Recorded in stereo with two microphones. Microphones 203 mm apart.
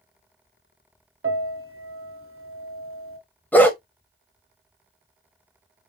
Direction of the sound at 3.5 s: 10° left (ahead or behind).